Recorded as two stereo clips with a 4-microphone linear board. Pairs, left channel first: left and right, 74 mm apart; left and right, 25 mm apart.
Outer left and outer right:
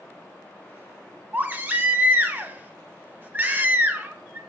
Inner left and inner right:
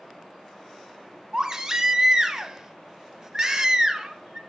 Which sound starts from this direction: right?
A baby crying, at 1.3 s.